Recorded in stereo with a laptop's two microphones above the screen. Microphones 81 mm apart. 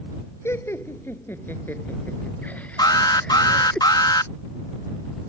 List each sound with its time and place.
0.5 s laughter: 30° left (ahead or behind); by 3.8 s 10° left (ahead or behind)
2.8 s an alarm: 55° left (ahead or behind)